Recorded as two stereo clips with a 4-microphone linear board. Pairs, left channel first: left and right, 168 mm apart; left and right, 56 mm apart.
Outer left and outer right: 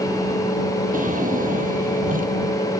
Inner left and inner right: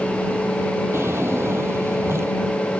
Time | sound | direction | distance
0.9 | a drawer | 50° right (ahead or behind) | ?